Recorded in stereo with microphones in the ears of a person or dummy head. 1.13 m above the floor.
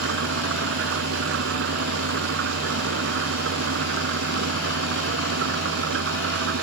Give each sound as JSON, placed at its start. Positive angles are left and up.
{"t": 0.0, "sound": "an engine running", "side_deg": -65}